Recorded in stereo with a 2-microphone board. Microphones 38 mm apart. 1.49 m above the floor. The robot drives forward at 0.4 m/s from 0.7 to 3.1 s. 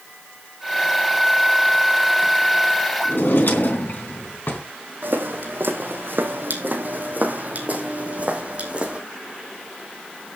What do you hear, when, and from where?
3.0 s a drawer: 60° left (ahead or behind), 3.5 m
5.0 s footsteps: 65° right (ahead or behind), 3.5 m; by 9.0 s 30° right (ahead or behind), 4 m